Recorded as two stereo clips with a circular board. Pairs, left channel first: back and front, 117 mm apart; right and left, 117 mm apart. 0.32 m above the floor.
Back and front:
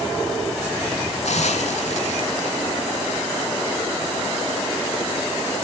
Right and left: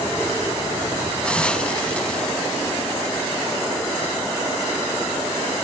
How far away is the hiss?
About 0.8 m.